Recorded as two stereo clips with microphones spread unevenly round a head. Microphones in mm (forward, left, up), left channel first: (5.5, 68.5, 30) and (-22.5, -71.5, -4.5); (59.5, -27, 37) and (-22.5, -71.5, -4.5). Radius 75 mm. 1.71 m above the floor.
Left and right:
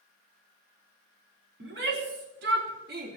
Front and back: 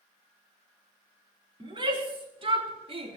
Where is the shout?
110° right, 4 m; by 3.2 s 125° right, 3 m.